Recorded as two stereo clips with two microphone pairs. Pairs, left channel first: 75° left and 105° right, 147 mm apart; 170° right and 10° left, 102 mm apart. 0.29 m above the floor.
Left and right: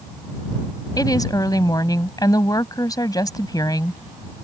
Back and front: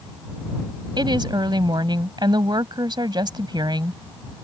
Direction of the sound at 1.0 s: 20° left.